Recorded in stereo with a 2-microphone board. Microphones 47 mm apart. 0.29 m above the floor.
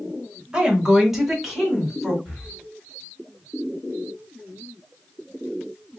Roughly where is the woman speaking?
Centre.